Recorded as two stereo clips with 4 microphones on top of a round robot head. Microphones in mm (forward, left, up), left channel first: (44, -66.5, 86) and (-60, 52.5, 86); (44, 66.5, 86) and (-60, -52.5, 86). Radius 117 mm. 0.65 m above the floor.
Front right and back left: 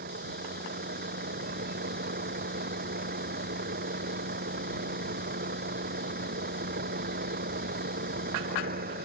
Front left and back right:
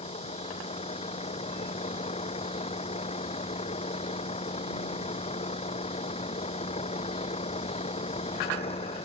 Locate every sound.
0.0 s a vehicle: 100° left